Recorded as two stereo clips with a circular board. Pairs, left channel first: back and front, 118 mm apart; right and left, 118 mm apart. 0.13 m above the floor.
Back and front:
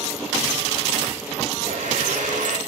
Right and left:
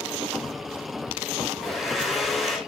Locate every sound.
1.6 s a blender: straight ahead, 3.5 m